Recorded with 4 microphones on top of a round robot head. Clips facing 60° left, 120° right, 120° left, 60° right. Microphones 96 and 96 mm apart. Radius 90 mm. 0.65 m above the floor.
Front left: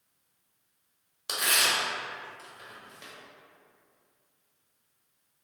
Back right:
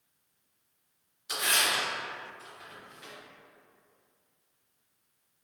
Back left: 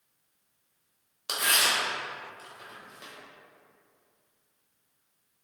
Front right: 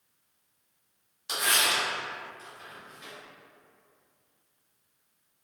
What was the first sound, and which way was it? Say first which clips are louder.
Tearing paper: front left 1 dB, even; 80° left.